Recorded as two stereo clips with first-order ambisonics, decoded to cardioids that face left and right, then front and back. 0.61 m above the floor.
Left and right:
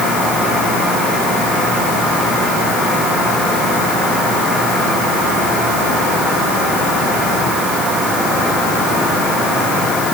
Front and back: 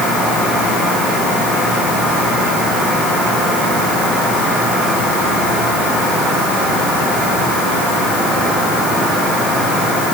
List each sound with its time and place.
Only background noise.